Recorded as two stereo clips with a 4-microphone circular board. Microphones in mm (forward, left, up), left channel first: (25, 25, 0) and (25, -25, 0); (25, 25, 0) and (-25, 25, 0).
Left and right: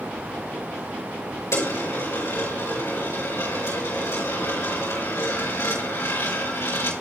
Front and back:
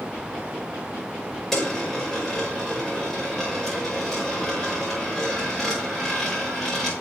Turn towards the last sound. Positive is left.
turn(degrees=85)